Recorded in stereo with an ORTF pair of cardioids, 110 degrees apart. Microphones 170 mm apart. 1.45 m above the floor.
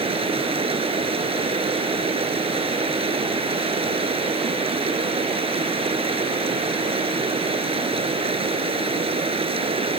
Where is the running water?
35° right.